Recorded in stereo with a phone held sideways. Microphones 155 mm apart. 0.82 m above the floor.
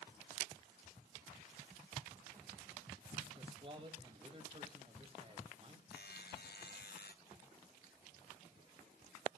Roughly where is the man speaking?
Right.